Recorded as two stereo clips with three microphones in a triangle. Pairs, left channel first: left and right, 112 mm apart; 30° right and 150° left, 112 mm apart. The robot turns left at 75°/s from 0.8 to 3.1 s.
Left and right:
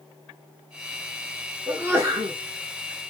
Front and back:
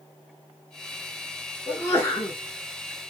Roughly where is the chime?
I don't hear a chime.